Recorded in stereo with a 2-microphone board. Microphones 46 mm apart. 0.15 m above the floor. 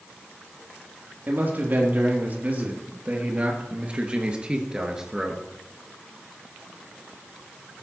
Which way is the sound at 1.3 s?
45° right (ahead or behind).